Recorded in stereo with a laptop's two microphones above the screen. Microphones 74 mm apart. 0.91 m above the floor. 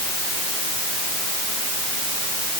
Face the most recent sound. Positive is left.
No sound to turn to.